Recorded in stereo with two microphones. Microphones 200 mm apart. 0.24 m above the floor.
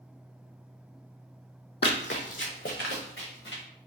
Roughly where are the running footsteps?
Left.